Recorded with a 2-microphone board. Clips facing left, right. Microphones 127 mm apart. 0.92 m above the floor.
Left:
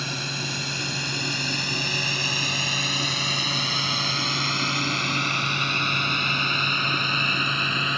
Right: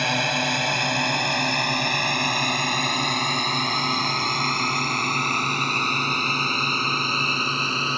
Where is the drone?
75° right (ahead or behind); by 8.0 s 35° right (ahead or behind).